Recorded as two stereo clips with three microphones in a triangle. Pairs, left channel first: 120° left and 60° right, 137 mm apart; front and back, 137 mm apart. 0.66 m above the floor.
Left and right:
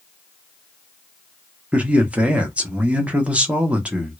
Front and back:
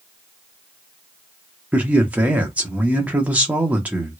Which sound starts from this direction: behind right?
A man speaking, at 1.7 s.